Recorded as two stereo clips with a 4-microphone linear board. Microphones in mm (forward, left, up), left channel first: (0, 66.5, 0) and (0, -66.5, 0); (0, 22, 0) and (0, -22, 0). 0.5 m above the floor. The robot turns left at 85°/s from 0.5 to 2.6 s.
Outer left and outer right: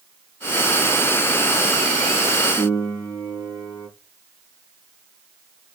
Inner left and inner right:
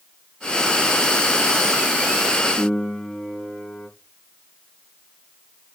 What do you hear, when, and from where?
2.6 s a piano: 25° left (ahead or behind), 4.5 m; by 3.9 s 30° left (ahead or behind), 4.5 m